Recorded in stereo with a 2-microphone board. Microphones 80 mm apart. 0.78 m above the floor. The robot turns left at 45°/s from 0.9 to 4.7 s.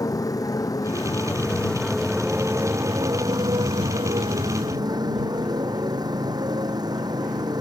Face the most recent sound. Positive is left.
turn(degrees=-125)